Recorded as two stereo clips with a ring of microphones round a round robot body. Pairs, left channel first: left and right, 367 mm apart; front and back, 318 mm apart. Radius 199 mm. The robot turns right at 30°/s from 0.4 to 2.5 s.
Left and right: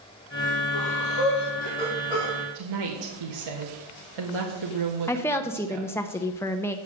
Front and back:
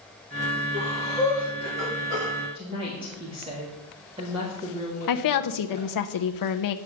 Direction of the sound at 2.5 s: 105° right.